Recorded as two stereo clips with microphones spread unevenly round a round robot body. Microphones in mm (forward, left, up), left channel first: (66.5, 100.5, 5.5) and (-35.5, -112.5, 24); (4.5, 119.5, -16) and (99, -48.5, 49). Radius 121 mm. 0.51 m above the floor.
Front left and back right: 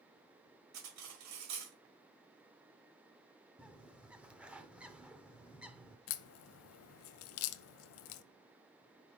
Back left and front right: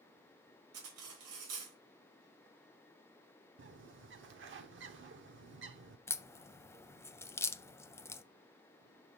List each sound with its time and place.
0.7 s cutlery clinking: 95° right, 1.2 m
3.6 s a bird: 30° right, 0.7 m
6.1 s a crack: 35° left, 0.5 m